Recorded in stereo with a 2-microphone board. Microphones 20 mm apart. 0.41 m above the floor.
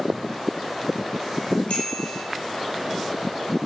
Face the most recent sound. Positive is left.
turn(degrees=55)  # may be behind; listen again after turning